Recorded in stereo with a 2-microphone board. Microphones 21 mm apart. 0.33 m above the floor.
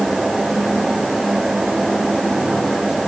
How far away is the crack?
No crack in this recording.